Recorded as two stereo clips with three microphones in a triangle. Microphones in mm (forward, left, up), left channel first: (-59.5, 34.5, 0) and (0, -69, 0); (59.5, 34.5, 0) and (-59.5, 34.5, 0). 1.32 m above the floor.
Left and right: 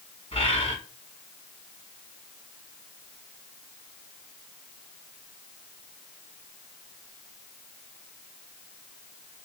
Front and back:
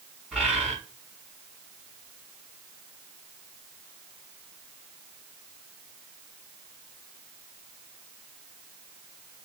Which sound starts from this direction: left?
A bird, at 0.3 s.